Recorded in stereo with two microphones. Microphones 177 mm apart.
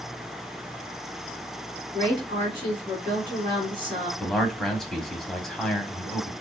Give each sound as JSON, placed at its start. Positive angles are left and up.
{"t": 1.9, "sound": "a woman speaking", "side_deg": -30, "distance_m": 1.9}
{"t": 4.2, "sound": "a man speaking", "side_deg": 5, "distance_m": 1.0}